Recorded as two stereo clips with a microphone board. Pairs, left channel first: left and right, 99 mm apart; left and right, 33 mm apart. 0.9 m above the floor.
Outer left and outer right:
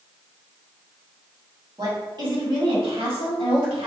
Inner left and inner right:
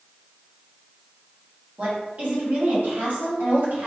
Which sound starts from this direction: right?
A woman speaking, at 1.8 s.